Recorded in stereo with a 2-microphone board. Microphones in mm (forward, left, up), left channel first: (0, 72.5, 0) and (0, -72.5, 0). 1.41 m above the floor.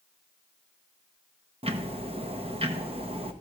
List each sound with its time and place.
1.6 s ticking: 40° right (ahead or behind), 0.9 m